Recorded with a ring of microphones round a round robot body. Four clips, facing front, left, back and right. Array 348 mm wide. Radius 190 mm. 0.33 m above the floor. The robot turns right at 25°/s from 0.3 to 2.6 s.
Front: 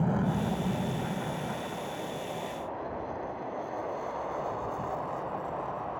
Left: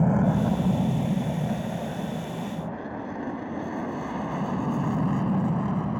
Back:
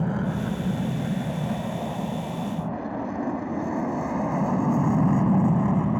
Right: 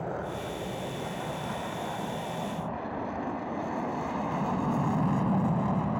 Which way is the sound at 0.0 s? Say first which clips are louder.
Left 11 dB, back 2 dB; 100° left.